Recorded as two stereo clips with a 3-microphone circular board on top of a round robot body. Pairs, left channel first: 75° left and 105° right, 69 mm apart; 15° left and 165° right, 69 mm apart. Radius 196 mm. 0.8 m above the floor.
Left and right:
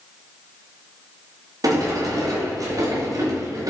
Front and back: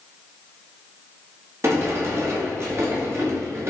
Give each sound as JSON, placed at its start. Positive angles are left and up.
{"t": 1.6, "sound": "a sliding door", "azimuth_deg": -120, "distance_m": 1.9}